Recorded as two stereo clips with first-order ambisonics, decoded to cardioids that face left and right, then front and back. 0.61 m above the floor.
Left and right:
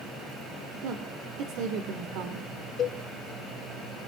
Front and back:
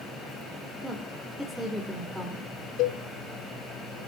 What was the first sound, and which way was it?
A woman speaking, 100° right.